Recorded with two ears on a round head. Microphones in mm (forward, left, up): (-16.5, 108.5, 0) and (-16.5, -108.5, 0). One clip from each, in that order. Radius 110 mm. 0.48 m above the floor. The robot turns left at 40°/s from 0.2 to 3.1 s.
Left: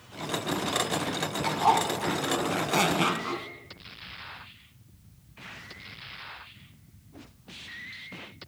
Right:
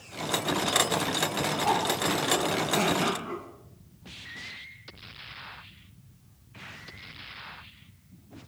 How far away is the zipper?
About 2 m.